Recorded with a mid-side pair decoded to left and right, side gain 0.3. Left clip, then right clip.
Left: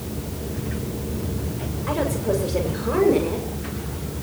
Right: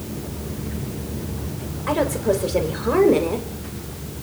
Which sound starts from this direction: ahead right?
A woman speaking, at 1.9 s.